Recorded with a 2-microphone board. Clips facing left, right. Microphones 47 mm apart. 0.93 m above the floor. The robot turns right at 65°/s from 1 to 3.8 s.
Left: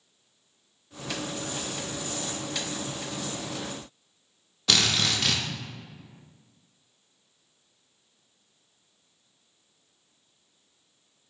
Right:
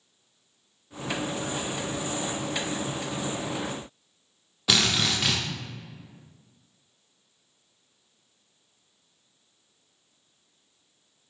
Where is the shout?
No shout in this recording.